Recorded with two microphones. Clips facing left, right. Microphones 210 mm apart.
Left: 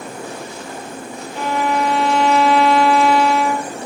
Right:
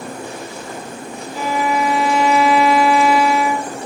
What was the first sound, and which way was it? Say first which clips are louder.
A violin: even; 5° right (ahead or behind).